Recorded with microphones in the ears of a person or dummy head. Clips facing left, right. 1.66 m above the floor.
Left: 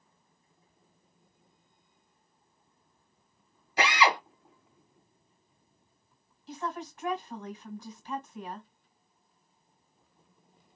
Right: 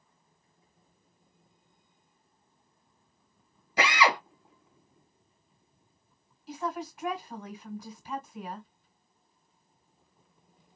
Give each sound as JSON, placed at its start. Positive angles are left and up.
{"t": 3.8, "sound": "a drill", "side_deg": -65, "distance_m": 1.4}
{"t": 6.5, "sound": "a woman speaking", "side_deg": -10, "distance_m": 1.5}